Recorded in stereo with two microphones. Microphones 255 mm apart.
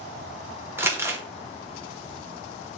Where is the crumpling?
10° right (ahead or behind), 0.5 m.